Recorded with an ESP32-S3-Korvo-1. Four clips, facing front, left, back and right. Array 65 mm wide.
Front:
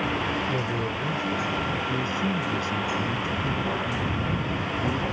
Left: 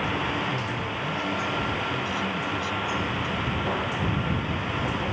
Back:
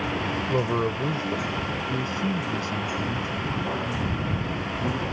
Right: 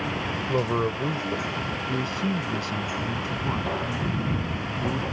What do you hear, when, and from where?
0.5 s a man speaking: 130° right
1.9 s a man speaking: 85° right